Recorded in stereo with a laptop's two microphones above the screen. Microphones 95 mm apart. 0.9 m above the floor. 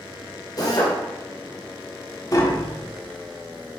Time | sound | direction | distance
0.6 | a drill | 45° left (ahead or behind) | 2 m
2.3 | tapping | 40° left (ahead or behind) | 1.3 m